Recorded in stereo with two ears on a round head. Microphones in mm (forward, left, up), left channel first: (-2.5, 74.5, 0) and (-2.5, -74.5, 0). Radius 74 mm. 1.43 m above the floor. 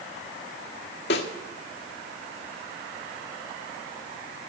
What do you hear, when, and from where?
1.1 s a snare drum: 70° left (ahead or behind), 1.8 m